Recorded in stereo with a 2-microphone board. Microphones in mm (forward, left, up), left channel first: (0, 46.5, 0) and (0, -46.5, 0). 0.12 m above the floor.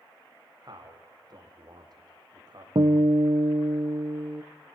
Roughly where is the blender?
I don't hear a blender.